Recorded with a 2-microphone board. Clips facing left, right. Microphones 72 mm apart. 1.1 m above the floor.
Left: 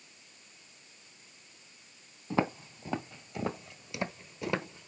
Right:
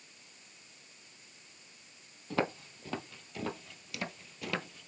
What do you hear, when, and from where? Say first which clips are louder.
2.3 s footsteps: left 3 dB; 15° left (ahead or behind), 1.5 m; by 4.9 s 20° left (ahead or behind), 1.2 m